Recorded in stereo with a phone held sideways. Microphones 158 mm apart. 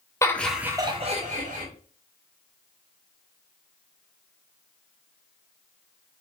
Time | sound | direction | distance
0.2 | laughter | 20° left (ahead or behind) | 0.9 m